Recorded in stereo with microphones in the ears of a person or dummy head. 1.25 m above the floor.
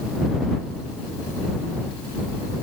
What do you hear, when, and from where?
Only background noise.